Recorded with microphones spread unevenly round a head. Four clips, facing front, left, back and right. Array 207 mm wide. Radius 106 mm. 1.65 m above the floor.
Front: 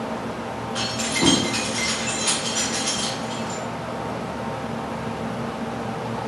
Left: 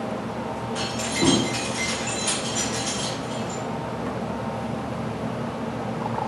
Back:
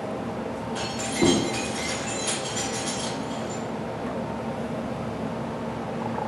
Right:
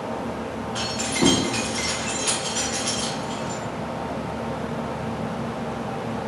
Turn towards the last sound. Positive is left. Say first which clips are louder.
# right 2 dB, even
turn(degrees=-120)